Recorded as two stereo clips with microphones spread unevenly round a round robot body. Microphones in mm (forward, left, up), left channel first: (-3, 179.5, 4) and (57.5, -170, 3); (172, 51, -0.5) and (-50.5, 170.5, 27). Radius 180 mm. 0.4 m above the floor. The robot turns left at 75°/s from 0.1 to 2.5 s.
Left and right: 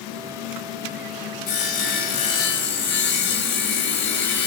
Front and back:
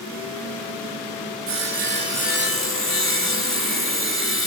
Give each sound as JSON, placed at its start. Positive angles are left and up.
{"t": 1.5, "sound": "sawing", "azimuth_deg": 120, "distance_m": 3.0}